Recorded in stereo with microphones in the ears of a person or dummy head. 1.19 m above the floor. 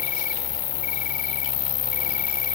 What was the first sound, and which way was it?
An insect, 45° left (ahead or behind).